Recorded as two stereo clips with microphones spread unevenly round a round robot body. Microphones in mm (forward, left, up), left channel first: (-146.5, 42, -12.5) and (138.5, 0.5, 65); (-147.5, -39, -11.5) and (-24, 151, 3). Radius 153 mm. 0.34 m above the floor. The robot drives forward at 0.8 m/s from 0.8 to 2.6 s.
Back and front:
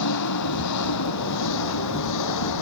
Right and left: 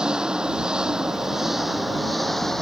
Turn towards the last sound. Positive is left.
turn(degrees=150)